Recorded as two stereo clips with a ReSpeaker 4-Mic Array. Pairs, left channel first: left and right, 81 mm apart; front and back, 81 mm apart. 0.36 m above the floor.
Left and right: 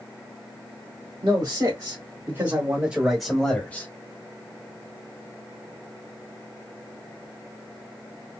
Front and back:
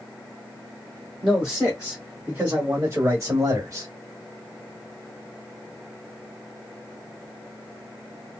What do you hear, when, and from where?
1.2 s a man speaking: 100° right, 2.5 m; by 3.9 s 145° left, 1.5 m